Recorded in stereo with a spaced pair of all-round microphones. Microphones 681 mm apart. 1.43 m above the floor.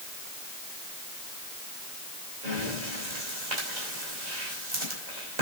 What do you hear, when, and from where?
2.4 s breathing: 80° right, 5 m